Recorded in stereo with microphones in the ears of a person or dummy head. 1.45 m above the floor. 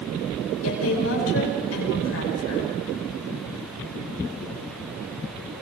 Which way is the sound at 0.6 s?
80° left.